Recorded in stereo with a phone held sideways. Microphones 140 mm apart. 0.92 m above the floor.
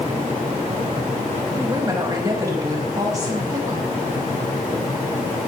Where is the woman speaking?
25° right (ahead or behind), 5.5 m.